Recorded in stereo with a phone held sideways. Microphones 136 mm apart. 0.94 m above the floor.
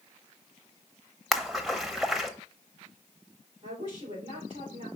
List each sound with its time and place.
1.3 s a splash: centre (ahead or behind), 0.8 m
3.6 s a woman speaking: 40° right (ahead or behind), 4 m